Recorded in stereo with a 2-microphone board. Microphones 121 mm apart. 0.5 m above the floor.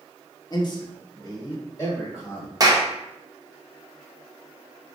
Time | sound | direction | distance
0.5 | a man speaking | 35° left (ahead or behind) | 0.8 m
2.6 | a clap | 30° right (ahead or behind) | 0.6 m